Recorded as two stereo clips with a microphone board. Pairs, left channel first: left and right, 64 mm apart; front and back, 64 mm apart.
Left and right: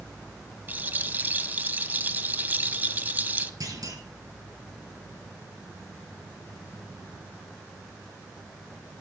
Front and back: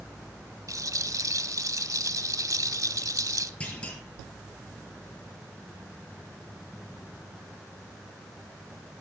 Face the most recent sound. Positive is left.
turn(degrees=-70)